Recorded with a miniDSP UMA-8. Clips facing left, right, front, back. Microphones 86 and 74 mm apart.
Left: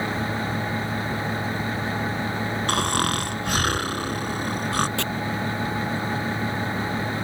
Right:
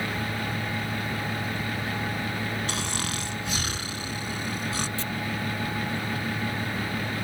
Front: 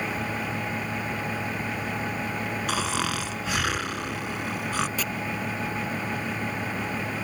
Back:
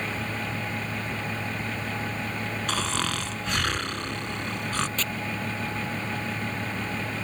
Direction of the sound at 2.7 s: 85° left.